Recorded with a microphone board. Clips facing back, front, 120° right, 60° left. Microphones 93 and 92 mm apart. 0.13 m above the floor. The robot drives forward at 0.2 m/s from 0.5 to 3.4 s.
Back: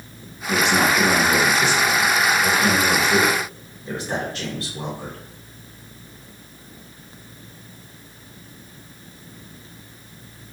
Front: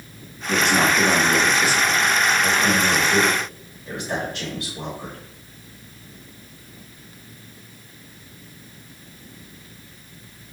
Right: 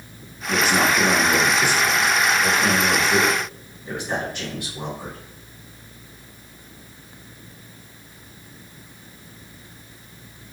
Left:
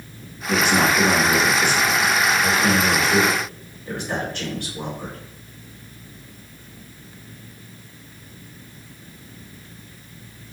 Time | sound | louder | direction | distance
0.5 | a man speaking | even, left 1 dB | 165° left | 1.4 m